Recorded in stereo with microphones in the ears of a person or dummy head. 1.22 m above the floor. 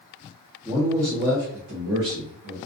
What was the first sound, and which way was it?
A man speaking, centre (ahead or behind).